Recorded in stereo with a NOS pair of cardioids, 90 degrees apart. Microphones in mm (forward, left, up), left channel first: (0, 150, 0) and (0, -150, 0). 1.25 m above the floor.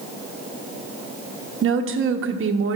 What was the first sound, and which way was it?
A woman speaking, 45° right.